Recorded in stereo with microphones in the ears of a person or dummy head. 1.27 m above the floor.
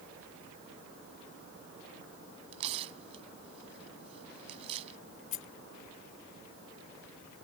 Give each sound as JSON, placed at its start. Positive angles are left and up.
{"t": 2.5, "sound": "tearing paper", "side_deg": -35}
{"t": 5.3, "sound": "a rattle", "side_deg": 40}